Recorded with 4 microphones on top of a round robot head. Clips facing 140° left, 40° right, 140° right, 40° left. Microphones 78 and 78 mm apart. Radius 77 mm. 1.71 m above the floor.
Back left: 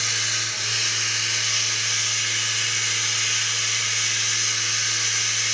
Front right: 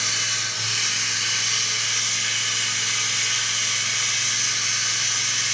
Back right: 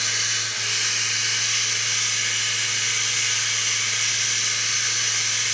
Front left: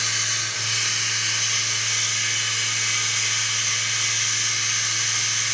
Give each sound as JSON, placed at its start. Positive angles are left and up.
{"t": 0.0, "sound": "running water", "azimuth_deg": -5, "distance_m": 1.9}